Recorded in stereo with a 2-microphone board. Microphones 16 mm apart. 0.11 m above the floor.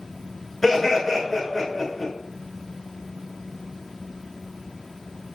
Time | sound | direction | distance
0.6 | laughter | 5° left (ahead or behind) | 1.1 m